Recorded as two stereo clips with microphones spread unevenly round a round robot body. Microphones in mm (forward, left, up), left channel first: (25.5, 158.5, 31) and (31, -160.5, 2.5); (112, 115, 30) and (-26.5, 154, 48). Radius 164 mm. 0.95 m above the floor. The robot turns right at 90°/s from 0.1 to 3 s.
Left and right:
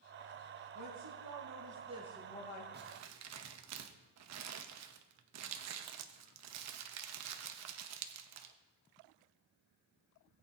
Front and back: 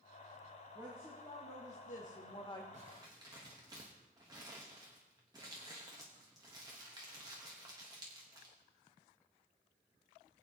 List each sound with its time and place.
0.8 s a woman speaking: 125° right, 1.9 m; by 2.6 s 45° left, 1.9 m
2.7 s crumpling: 145° right, 0.8 m; by 8.6 s 125° right, 0.8 m